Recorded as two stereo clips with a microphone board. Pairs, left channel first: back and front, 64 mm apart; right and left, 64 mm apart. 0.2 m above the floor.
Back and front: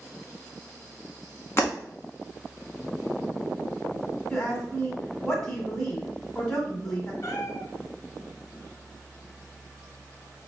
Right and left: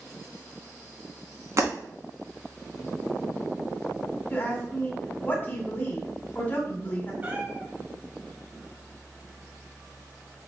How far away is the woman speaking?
About 1.4 m.